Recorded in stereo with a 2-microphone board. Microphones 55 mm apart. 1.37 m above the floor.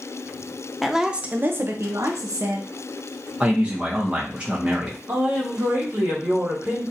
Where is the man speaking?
20° right (ahead or behind), 0.8 m.